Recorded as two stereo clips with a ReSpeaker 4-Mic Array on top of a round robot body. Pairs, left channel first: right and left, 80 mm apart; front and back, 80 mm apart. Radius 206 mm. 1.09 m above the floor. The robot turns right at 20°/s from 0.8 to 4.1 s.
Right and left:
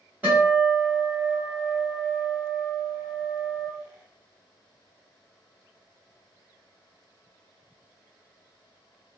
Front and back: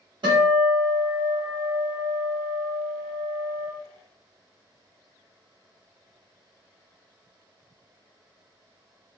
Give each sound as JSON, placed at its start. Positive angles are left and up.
{"t": 0.2, "sound": "a guitar", "azimuth_deg": 160, "distance_m": 0.9}